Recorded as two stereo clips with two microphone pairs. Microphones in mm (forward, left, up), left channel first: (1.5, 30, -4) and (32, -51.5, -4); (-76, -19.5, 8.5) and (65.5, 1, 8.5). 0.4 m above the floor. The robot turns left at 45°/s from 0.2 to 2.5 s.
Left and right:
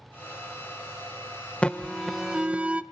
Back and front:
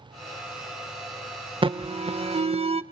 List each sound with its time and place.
1.6 s an alarm: 40° left, 0.6 m; by 2.8 s straight ahead, 0.6 m